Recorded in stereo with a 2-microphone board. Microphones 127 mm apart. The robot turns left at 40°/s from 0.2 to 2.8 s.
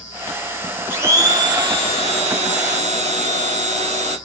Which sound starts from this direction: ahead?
A blender, at 0.9 s.